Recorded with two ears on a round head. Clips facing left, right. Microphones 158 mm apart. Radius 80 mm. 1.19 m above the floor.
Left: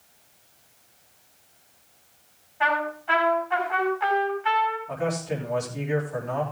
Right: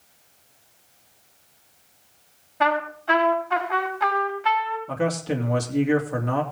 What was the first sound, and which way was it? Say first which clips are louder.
A trumpet: right 3 dB; 55° right (ahead or behind).